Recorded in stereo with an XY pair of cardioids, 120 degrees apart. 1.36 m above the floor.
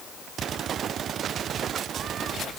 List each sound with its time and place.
Only background noise.